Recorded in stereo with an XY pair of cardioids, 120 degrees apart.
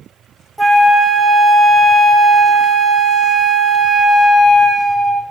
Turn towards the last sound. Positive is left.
turn(degrees=-5)